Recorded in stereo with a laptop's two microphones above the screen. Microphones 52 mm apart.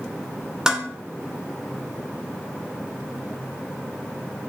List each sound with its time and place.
0.7 s dishes clattering: 10° right (ahead or behind), 2 m